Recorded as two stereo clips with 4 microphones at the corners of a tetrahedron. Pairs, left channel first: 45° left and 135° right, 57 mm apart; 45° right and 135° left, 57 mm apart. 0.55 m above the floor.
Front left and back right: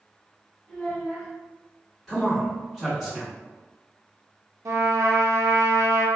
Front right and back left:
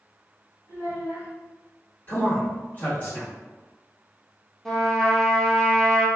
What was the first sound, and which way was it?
A child speaking, 35° right.